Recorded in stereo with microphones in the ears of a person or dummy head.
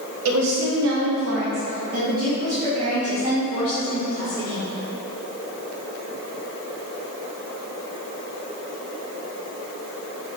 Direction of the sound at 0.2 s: 85° right.